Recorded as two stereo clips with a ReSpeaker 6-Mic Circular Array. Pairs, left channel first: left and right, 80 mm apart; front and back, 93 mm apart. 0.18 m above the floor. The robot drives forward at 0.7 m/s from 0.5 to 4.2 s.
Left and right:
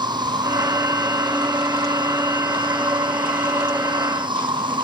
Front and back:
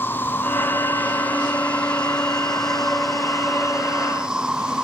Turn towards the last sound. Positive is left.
turn(degrees=-100)